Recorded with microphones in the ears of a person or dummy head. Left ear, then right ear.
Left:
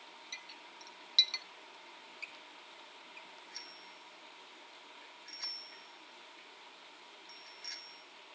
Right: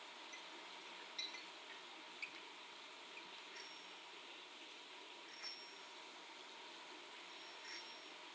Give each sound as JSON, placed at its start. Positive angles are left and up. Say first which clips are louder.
{"t": 0.3, "sound": "a clink", "louder": "left 5 dB", "side_deg": 65, "distance_m": 0.7}
{"t": 1.7, "sound": "a squeak", "louder": "left 5 dB", "side_deg": 10, "distance_m": 0.8}
{"t": 3.5, "sound": "a bicycle bell", "louder": "left 4 dB", "side_deg": 75, "distance_m": 4.0}